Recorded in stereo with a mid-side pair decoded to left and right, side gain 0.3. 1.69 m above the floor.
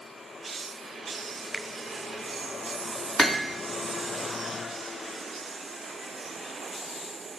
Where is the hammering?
15° right, 3 m.